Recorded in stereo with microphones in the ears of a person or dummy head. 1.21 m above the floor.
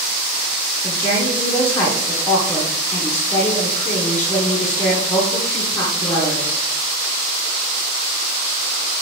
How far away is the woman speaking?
About 1.4 m.